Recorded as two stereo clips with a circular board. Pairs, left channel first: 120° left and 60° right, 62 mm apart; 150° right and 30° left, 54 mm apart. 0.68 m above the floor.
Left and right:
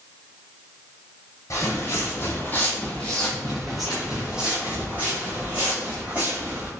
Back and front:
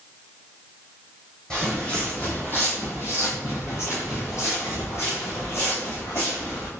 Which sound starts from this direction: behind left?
Footsteps, at 1.5 s.